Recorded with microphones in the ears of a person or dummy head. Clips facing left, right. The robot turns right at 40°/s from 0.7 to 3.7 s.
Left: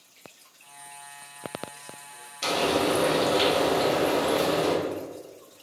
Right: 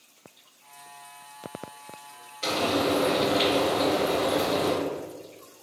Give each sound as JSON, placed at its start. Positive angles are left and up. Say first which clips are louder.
{"t": 2.4, "sound": "frying", "louder": "left 1 dB", "azimuth_deg": 70, "distance_m": 1.7}